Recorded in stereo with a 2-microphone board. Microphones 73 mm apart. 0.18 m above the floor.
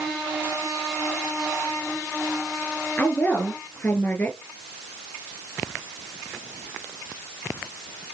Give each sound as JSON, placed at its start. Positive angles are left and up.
{"t": 3.0, "sound": "a woman speaking", "side_deg": 20, "distance_m": 3.5}